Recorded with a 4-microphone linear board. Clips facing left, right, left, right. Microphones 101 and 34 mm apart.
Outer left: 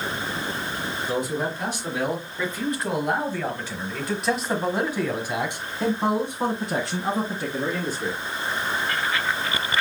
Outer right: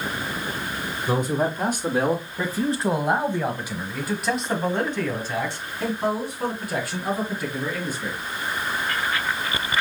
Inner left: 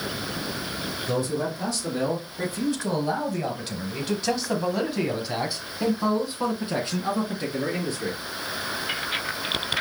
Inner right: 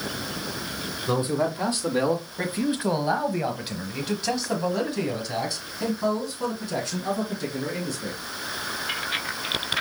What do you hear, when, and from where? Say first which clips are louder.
1.1 s a man speaking: outer right 4 dB, inner right 3 dB; 50° right (ahead or behind), 1.6 m; by 8.2 s 35° left (ahead or behind), 2.5 m